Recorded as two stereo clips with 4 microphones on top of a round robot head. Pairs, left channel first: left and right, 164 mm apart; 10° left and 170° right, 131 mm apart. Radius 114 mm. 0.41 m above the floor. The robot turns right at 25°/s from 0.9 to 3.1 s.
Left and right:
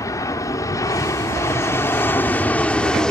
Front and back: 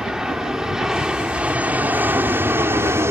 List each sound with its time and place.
0.0 s an aircraft: 115° left; by 3.1 s 170° left